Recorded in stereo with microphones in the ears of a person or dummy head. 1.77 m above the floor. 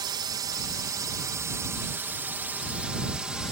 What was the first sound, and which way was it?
A drone, 25° right (ahead or behind).